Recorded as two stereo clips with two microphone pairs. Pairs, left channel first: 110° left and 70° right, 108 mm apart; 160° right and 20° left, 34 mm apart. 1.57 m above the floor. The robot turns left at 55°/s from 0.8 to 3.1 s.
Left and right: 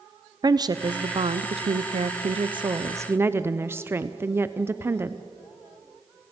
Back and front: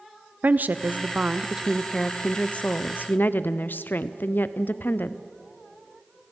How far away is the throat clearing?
No throat clearing in this recording.